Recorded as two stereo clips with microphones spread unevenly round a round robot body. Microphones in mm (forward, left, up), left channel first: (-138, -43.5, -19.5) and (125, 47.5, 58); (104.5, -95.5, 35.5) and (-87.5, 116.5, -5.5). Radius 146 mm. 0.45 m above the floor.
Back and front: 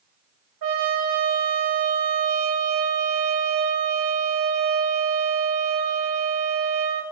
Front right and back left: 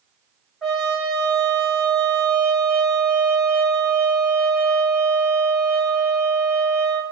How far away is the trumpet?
About 2 m.